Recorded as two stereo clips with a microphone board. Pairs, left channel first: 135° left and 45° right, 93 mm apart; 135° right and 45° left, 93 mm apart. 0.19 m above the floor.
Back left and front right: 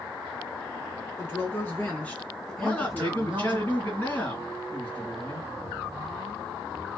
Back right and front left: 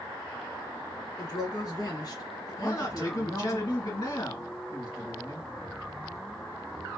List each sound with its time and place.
1.2 s a woman speaking: 165° right, 2.5 m; by 3.6 s 105° right, 1.5 m
2.6 s a man speaking: 155° right, 2.5 m